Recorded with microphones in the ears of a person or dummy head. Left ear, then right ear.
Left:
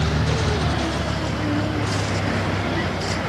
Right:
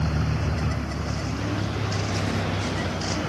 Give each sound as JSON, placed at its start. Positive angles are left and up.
{"t": 0.0, "sound": "a vehicle", "side_deg": 15}